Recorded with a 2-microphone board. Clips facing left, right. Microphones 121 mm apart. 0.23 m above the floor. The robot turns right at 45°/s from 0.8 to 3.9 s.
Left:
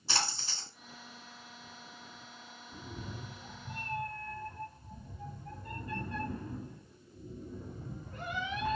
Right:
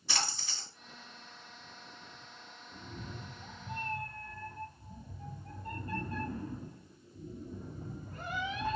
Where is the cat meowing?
170° left, 0.9 m; by 8.8 s 140° right, 0.9 m.